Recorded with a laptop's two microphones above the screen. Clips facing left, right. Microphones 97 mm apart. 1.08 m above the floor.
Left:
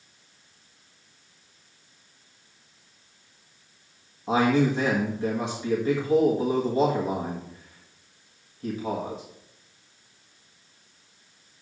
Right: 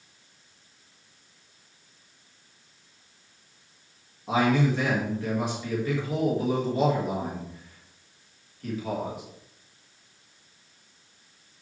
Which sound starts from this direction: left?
A man speaking, at 4.3 s.